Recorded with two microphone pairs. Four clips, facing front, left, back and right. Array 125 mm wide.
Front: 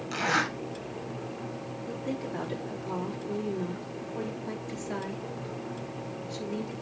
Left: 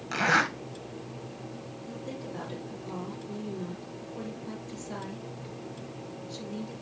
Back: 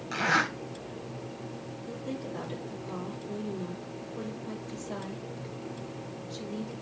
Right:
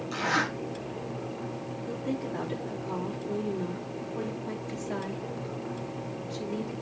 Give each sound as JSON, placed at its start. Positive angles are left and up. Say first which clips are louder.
{"t": 0.1, "sound": "a zipper", "louder": "left 3 dB, back 1 dB", "azimuth_deg": 110, "distance_m": 2.5}
{"t": 1.9, "sound": "a woman speaking", "louder": "right 7 dB, front 3 dB", "azimuth_deg": -20, "distance_m": 3.0}